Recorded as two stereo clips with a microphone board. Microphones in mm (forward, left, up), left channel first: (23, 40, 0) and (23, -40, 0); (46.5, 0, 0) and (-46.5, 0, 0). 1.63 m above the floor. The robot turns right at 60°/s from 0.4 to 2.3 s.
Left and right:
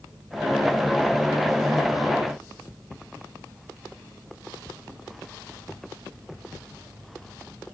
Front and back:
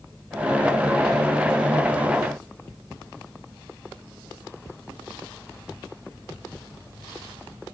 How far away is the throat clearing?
I don't hear throat clearing.